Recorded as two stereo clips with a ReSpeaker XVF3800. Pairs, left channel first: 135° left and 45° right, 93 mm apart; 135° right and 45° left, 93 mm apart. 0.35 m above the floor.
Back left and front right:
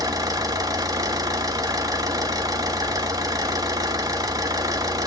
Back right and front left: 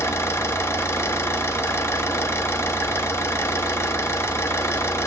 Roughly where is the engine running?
Right.